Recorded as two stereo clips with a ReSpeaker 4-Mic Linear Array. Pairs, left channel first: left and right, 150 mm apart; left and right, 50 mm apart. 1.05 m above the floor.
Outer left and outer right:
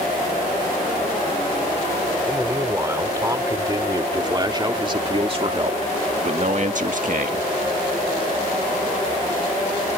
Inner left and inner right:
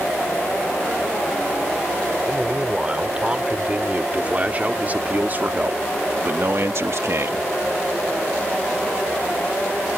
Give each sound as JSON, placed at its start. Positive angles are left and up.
{"t": 2.3, "sound": "a man speaking", "side_deg": -20}